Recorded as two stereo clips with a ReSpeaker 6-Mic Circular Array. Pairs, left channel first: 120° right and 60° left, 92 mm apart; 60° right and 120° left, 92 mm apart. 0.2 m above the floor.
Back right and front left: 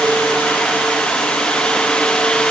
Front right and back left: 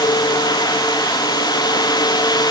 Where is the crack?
I don't hear a crack.